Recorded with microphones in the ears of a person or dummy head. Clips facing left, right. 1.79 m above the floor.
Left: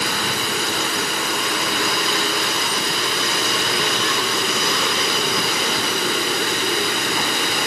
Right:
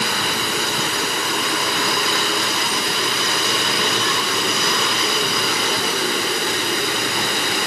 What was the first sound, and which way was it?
Only background noise.